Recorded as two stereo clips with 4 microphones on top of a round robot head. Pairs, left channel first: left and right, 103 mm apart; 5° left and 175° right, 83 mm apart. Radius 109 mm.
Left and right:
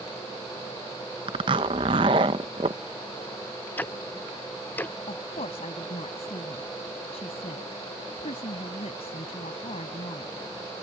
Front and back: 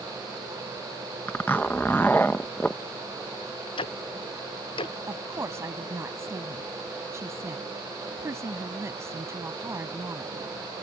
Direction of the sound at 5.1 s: 125° left.